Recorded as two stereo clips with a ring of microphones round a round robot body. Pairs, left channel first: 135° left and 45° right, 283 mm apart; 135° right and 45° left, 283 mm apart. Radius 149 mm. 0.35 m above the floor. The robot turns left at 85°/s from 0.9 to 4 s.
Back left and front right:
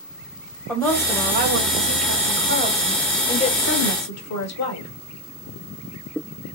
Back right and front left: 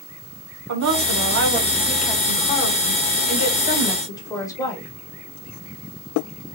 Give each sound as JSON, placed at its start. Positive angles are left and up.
{"t": 0.7, "sound": "a woman speaking", "azimuth_deg": 50, "distance_m": 1.7}